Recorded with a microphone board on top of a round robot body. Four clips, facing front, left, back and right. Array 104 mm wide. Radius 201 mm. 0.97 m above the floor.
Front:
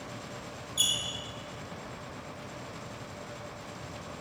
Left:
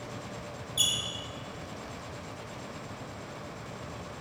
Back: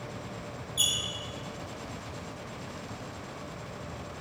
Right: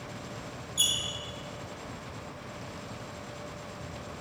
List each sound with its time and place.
0.8 s a squeak: 90° left, 0.6 m